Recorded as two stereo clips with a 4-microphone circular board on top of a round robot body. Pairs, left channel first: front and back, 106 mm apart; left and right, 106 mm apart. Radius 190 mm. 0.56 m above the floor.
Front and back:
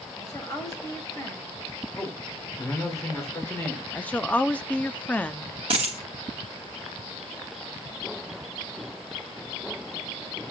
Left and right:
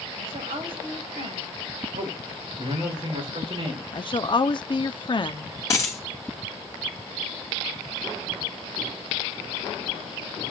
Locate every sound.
0.2 s a woman speaking: 60° right, 7.5 m
1.9 s a man speaking: 60° right, 3.5 m
3.9 s a woman speaking: 70° left, 0.9 m
5.7 s a dropped coin: 150° left, 0.7 m